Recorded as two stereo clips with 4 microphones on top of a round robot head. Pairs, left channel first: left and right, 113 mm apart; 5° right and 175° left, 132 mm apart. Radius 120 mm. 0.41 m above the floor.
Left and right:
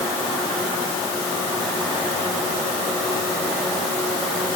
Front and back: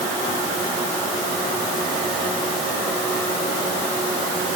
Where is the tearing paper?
I don't hear tearing paper.